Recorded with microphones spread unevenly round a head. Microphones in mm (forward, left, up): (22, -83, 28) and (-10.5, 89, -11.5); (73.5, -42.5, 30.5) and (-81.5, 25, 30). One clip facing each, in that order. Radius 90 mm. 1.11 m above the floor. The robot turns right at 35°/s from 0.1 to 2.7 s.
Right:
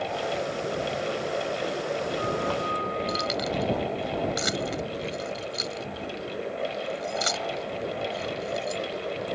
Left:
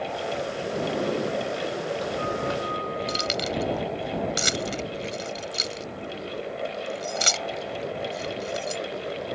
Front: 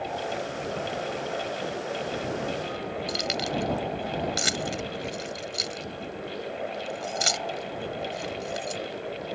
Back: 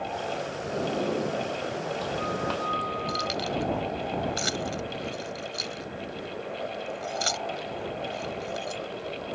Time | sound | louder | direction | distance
0.7 | a sliding door | left 3 dB, back 8 dB | 105° left | ?
3.1 | keys jangling | even, even | 45° left | ?